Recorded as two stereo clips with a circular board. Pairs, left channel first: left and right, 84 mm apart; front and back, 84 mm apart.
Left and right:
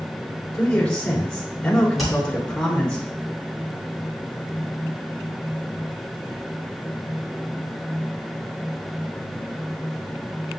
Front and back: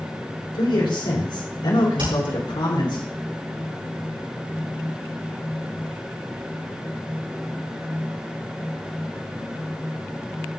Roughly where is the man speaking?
Ahead.